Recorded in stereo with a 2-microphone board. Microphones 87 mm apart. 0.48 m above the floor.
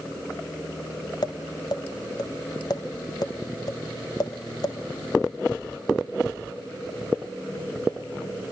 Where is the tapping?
50° left (ahead or behind), 1.7 m.